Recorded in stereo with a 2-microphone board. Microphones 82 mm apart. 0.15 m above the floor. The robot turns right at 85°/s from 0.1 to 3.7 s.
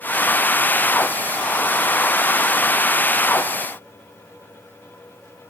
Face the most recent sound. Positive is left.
No sound to turn to.